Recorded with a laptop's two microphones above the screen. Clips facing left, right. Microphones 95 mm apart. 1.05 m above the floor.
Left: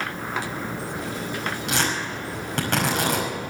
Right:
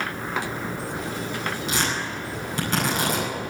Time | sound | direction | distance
1.7 | tearing paper | 65° left (ahead or behind) | 5.5 m